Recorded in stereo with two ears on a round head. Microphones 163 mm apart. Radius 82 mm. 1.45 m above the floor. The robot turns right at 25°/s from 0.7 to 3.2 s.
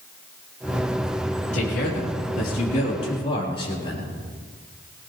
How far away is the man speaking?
About 3.5 m.